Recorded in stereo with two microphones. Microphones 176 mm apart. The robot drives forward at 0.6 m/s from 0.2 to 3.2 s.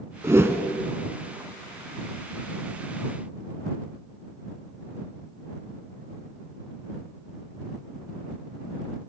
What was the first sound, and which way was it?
A whoosh, 15° right (ahead or behind).